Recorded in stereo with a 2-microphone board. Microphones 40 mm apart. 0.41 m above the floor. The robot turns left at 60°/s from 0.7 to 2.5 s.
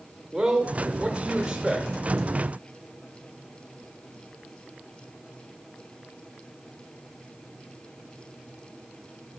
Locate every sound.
0.3 s a man speaking: 20° right (ahead or behind), 1.3 m; by 1.9 s 25° right (ahead or behind), 1.3 m